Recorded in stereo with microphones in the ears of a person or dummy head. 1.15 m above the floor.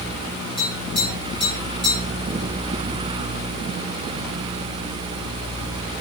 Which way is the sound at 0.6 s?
5° left (ahead or behind).